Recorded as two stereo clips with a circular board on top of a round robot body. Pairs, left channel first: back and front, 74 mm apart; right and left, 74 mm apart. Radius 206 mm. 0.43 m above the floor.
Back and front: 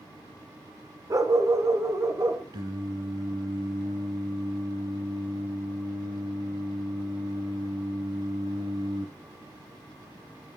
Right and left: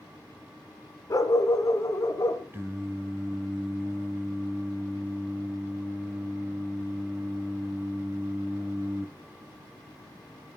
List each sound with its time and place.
1.1 s a dog barking: 45° right, 1.3 m
2.5 s singing: 25° left, 0.7 m